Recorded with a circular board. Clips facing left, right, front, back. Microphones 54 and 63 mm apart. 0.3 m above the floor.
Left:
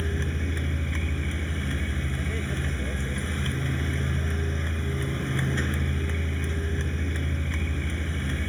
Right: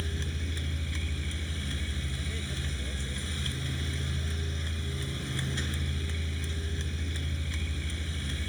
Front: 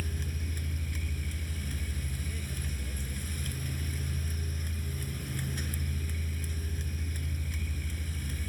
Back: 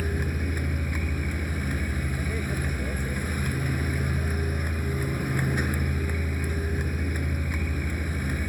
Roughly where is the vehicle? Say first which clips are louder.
Left 7 dB, back 10 dB; behind left.